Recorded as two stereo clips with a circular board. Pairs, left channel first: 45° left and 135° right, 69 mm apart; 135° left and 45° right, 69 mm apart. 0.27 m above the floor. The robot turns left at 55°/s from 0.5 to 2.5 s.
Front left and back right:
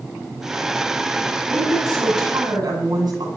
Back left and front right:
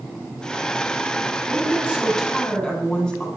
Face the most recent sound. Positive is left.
turn(degrees=-150)